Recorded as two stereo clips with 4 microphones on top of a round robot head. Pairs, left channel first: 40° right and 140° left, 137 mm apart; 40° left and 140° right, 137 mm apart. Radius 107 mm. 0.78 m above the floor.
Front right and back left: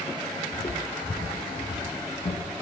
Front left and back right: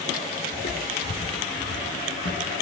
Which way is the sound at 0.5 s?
20° left.